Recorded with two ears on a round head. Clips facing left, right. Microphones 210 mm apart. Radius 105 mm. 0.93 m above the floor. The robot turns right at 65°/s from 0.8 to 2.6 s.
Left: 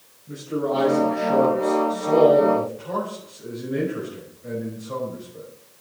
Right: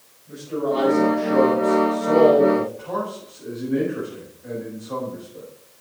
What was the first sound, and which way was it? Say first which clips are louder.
A man speaking: right 1 dB; 25° left.